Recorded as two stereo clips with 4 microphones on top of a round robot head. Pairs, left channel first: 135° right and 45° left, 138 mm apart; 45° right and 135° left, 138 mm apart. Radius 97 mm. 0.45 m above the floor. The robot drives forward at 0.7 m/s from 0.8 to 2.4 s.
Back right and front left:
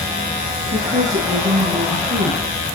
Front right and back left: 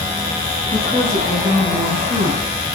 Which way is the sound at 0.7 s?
25° left.